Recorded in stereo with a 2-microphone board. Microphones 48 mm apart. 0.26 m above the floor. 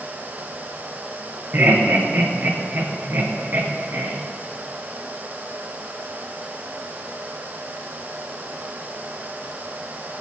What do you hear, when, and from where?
1.5 s laughter: 45° right (ahead or behind), 3.5 m